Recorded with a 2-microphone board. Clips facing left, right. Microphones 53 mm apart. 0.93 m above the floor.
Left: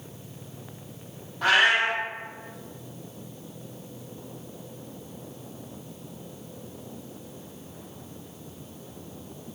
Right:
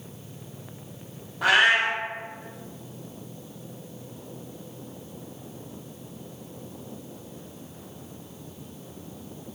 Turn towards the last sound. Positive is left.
turn(degrees=-10)  # may be behind; listen again after turning